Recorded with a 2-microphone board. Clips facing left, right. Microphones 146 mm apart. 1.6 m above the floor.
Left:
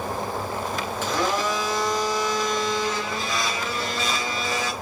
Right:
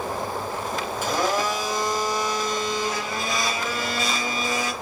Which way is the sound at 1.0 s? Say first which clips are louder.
Right 1 dB; 15° right (ahead or behind).